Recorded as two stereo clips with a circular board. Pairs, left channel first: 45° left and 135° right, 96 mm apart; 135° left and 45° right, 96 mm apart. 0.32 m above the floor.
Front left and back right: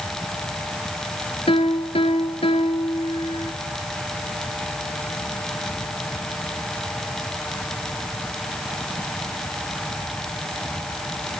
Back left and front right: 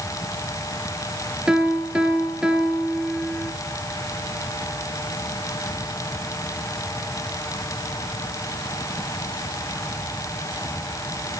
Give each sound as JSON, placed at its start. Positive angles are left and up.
{"t": 1.5, "sound": "a piano", "azimuth_deg": 35, "distance_m": 1.9}